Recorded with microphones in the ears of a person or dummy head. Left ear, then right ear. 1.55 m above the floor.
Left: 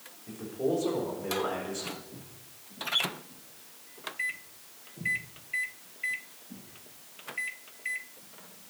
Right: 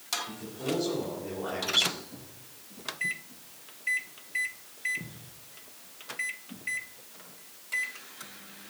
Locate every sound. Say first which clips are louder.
0.3 s a man speaking: left 3 dB; 65° left (ahead or behind), 4 m; by 1.8 s 80° left, 4.5 m
1.9 s footsteps: right 2 dB; 10° left (ahead or behind), 2.5 m; by 6.7 s 15° right (ahead or behind), 4.5 m